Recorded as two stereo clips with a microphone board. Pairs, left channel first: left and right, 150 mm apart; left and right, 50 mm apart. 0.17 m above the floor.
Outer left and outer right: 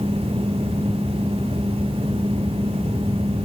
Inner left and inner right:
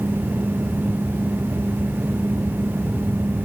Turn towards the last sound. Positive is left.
No sound to turn to.